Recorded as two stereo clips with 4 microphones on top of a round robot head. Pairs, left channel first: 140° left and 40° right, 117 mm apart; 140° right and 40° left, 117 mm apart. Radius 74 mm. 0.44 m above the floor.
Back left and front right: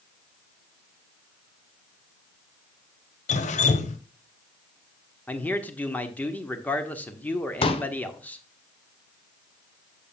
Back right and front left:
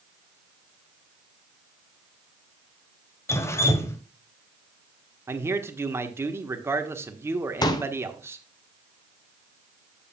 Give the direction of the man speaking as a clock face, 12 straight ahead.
9 o'clock.